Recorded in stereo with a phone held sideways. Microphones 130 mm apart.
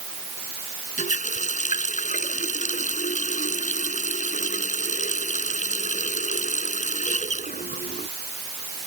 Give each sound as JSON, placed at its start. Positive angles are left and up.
{"t": 1.0, "sound": "a running tap", "side_deg": 75}